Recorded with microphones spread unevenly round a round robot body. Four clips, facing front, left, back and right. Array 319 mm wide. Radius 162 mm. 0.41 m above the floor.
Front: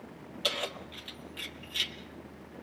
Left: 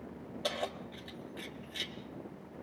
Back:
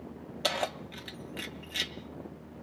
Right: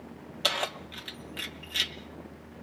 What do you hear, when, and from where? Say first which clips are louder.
0.4 s keys jangling: right 4 dB, back 4 dB; 165° right, 1.6 m